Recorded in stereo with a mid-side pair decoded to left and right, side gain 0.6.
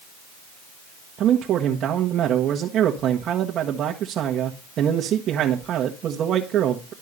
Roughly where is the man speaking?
Ahead right.